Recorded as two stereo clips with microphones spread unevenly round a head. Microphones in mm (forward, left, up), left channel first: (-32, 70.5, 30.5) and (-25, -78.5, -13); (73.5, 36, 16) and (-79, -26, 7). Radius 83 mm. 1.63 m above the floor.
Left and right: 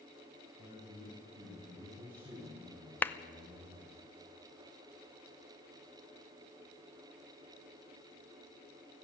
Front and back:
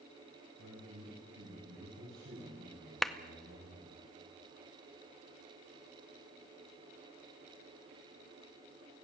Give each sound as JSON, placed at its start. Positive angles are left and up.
{"t": 0.6, "sound": "a man speaking", "azimuth_deg": -165, "distance_m": 6.5}
{"t": 3.0, "sound": "a clap", "azimuth_deg": 105, "distance_m": 0.6}